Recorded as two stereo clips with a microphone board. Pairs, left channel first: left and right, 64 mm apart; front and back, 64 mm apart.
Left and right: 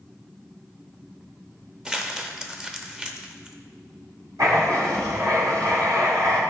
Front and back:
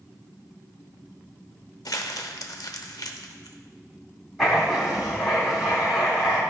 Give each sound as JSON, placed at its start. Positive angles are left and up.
{"t": 1.9, "sound": "crumpling", "azimuth_deg": -15, "distance_m": 0.7}
{"t": 4.4, "sound": "writing", "azimuth_deg": -95, "distance_m": 3.0}